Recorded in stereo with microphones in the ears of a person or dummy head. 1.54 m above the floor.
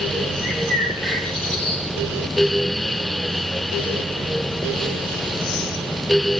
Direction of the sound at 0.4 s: 5° left (ahead or behind).